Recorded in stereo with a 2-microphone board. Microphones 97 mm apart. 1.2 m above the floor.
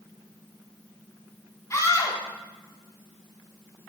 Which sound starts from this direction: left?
A scream, at 1.7 s.